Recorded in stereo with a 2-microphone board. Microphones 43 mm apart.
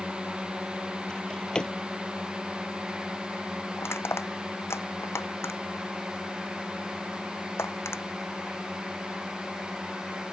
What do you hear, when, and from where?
0.0 s a drone: 25° right (ahead or behind); by 10.3 s 15° right (ahead or behind)
1.1 s a drawer: 20° left (ahead or behind)
3.8 s crushing: 80° left